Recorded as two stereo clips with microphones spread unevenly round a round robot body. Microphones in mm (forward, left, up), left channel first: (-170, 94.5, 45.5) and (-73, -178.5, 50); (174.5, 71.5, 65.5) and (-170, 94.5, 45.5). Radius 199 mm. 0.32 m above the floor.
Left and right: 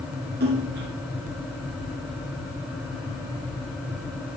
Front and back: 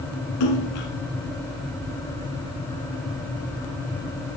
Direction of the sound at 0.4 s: 5° right.